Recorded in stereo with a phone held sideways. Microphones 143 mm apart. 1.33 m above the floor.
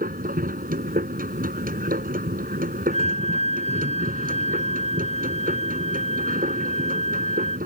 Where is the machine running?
70° right (ahead or behind).